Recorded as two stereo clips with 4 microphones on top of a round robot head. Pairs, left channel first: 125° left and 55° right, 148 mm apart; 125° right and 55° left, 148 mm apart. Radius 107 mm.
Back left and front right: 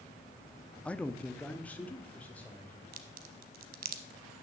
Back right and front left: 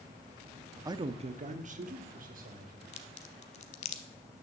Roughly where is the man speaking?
Ahead left.